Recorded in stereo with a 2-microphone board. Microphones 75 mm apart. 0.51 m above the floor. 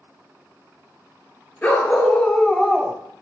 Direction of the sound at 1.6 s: 25° left (ahead or behind).